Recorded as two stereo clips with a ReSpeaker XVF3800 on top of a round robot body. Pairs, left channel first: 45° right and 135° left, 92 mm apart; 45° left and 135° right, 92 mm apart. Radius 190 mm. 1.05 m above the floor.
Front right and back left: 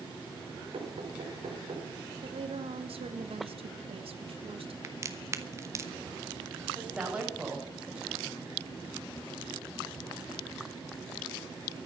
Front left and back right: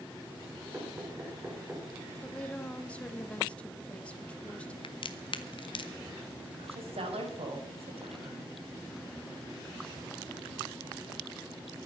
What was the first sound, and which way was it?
Knocking, 155° left.